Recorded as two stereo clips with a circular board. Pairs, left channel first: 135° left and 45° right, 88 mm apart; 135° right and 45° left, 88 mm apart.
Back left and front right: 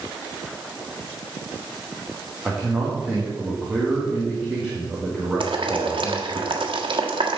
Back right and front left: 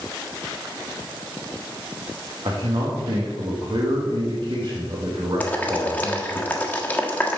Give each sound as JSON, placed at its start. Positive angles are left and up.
{"t": 2.5, "sound": "a man speaking", "azimuth_deg": 35, "distance_m": 2.0}
{"t": 5.4, "sound": "boiling", "azimuth_deg": -65, "distance_m": 1.4}